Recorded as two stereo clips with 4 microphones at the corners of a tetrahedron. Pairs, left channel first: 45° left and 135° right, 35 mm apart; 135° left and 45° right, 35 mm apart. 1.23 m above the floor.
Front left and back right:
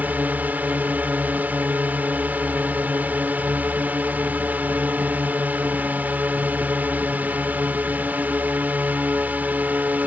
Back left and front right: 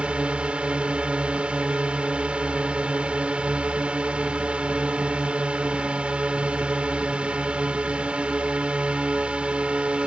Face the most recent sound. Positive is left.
turn(degrees=-100)